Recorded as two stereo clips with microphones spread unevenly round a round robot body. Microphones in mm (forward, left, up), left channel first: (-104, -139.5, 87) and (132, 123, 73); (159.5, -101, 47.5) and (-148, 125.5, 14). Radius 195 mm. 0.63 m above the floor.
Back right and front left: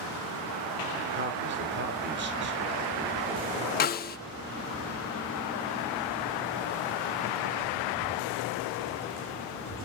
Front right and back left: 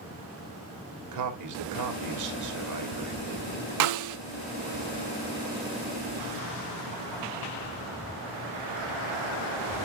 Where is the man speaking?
105° left, 3 m.